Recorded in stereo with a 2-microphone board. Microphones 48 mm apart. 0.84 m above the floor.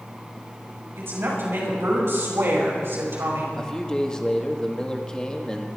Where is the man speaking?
15° left (ahead or behind), 1.6 m.